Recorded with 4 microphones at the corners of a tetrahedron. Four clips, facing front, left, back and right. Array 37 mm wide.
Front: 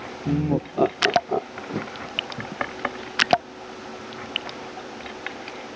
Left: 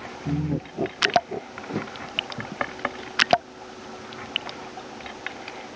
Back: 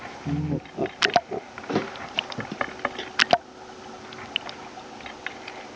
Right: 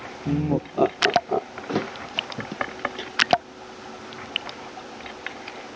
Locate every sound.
0.2 s laughter: 50° right; by 1.6 s 55° right
1.7 s a thud: 140° right